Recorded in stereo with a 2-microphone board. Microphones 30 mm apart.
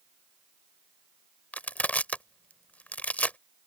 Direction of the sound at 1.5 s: 55° left (ahead or behind).